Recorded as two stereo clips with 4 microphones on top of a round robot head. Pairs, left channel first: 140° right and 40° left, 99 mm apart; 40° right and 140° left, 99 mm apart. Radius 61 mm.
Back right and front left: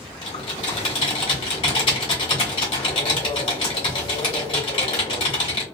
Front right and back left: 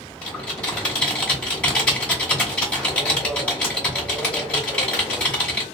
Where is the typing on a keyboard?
115° right, 0.9 m.